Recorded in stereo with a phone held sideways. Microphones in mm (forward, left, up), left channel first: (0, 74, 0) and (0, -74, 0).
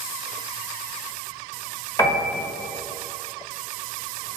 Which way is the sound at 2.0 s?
15° left (ahead or behind).